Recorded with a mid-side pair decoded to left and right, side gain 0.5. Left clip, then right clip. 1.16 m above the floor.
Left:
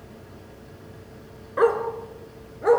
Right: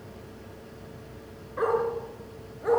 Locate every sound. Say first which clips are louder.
1.6 s a dog barking: left 5 dB; 50° left, 4.5 m; by 2.8 s 45° left, 5.5 m